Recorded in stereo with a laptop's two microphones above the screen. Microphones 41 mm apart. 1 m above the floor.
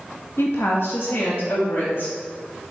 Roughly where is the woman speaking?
Left.